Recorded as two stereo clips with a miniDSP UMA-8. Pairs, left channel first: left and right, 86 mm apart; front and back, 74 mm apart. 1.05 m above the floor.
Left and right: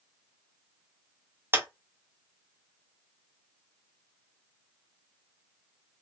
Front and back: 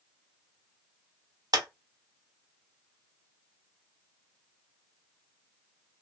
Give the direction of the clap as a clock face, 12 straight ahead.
5 o'clock.